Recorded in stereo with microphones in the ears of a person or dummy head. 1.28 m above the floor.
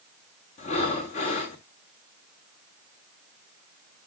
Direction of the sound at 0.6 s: 40° left (ahead or behind).